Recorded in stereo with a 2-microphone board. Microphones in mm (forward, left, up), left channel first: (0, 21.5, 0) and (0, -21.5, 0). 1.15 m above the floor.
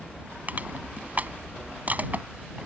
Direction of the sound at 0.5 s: 40° right (ahead or behind).